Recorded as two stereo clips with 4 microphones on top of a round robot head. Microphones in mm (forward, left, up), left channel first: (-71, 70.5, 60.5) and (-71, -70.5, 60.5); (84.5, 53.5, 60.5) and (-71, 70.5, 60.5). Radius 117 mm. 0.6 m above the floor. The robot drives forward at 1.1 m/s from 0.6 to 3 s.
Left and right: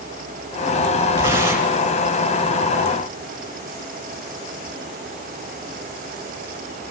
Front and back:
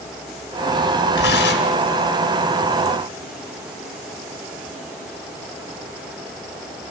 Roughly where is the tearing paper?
Ahead.